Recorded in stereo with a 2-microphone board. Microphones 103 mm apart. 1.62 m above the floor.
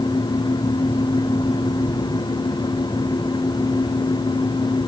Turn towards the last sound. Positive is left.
No sound to turn to.